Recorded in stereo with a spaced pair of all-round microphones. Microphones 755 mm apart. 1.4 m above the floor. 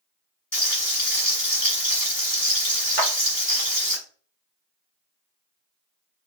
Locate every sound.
0.5 s frying: 55° left (ahead or behind), 1.7 m
3.0 s a clap: 45° right (ahead or behind), 0.6 m